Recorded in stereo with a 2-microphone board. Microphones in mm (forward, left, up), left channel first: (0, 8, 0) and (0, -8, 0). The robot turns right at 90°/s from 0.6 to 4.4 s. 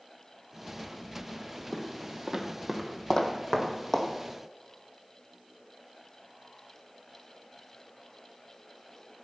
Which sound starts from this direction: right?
Footsteps, at 1.7 s.